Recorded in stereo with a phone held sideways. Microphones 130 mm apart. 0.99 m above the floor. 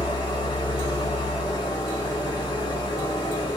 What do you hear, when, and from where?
0.0 s an engine running: 35° left (ahead or behind), 1.0 m